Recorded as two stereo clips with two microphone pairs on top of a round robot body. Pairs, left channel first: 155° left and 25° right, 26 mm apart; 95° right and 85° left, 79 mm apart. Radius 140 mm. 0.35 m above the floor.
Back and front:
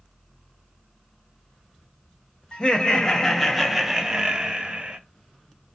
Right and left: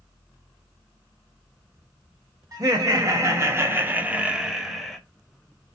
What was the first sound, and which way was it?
Laughter, 125° left.